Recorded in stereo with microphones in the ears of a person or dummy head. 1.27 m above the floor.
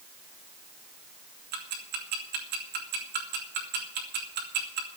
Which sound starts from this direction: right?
Ticking, at 1.5 s.